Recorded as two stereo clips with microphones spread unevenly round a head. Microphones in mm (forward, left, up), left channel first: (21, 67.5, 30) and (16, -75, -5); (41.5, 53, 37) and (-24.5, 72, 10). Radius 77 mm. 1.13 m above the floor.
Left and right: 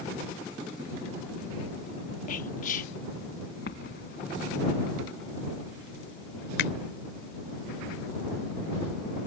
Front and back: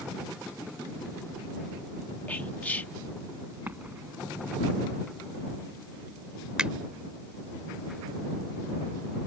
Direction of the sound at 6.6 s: 80° left.